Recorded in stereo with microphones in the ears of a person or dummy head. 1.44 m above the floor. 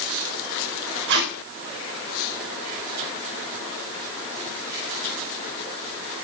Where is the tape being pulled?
70° right (ahead or behind), 3 m.